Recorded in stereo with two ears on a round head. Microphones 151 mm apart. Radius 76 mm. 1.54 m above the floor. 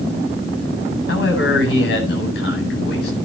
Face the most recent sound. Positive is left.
turn(degrees=75)  # may be behind; listen again after turning